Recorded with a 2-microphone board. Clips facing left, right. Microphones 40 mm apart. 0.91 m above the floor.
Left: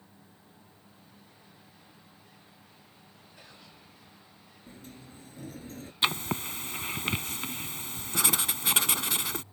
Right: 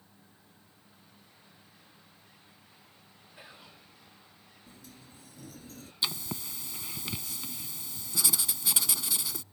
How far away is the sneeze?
No sneeze in this recording.